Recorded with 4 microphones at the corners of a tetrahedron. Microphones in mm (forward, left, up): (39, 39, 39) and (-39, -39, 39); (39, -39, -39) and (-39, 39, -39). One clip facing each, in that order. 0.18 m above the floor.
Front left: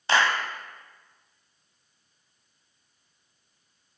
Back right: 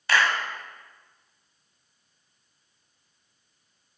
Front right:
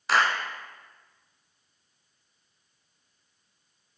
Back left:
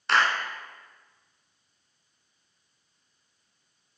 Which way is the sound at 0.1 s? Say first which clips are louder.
Front left 1 dB, even; 40° left.